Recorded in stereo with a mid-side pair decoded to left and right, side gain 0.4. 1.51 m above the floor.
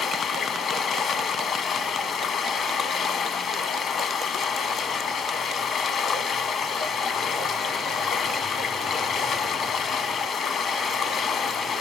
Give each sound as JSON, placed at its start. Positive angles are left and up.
{"t": 0.0, "sound": "running water", "azimuth_deg": 65, "distance_m": 1.1}